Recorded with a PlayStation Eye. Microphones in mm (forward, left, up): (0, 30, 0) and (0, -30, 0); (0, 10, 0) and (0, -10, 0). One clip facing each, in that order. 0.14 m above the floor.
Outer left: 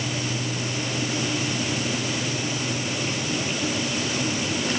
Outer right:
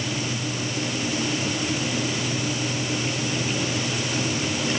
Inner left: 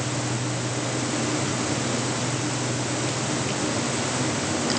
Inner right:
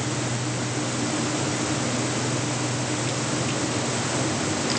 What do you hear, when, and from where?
Only background noise.